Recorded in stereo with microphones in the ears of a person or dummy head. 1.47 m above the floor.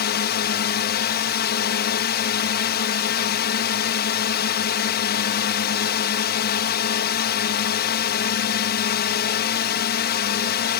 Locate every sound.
0.0 s a drone: 45° left (ahead or behind)